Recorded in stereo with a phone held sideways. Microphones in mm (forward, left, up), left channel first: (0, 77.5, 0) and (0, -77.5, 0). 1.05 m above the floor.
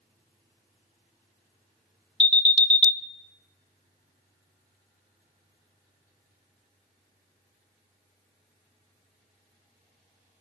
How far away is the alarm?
About 1.1 m.